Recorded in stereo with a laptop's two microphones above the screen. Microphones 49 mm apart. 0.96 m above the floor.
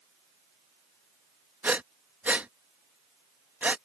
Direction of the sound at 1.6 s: 35° right (ahead or behind).